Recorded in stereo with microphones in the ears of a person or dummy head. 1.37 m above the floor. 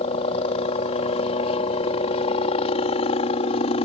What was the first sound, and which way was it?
A helicopter, 30° left (ahead or behind).